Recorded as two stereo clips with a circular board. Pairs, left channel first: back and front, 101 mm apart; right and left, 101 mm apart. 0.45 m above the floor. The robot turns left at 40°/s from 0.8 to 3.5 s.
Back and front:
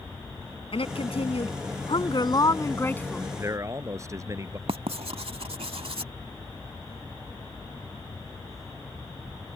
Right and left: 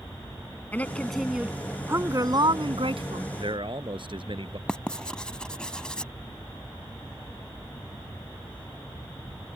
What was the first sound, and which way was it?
A woman speaking, 165° right.